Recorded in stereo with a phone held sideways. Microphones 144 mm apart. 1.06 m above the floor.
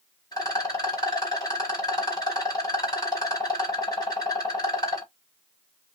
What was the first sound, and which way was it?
A rattle, 25° left (ahead or behind).